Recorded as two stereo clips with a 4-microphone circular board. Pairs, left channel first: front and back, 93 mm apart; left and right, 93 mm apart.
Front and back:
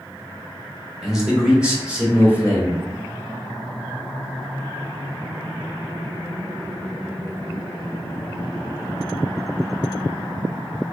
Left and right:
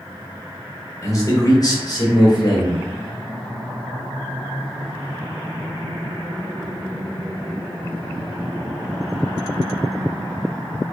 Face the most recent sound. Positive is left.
turn(degrees=110)